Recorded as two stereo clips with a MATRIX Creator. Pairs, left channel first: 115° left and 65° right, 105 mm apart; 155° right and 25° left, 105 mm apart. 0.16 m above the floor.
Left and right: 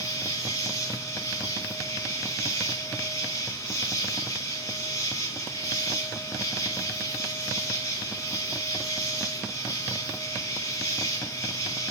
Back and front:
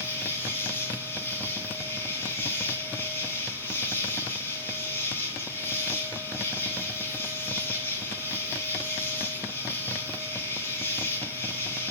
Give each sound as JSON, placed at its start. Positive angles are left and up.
{"t": 0.0, "sound": "an insect", "azimuth_deg": 150, "distance_m": 2.5}